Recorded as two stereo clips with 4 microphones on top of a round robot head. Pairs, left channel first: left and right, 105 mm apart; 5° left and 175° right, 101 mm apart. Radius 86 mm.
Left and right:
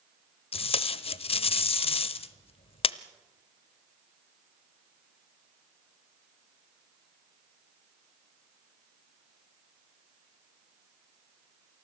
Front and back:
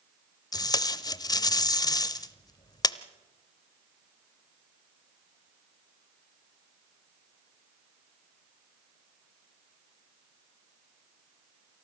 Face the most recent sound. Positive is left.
turn(degrees=60)